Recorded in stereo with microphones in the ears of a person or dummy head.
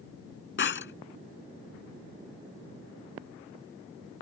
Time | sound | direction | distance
0.6 | breaking glass | 65° left (ahead or behind) | ?